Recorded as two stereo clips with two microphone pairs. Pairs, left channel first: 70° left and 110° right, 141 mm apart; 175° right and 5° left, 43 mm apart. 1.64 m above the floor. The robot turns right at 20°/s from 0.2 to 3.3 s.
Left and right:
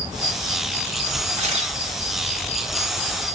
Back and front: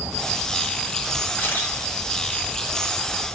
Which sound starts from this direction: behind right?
A camera shutter, at 1.4 s.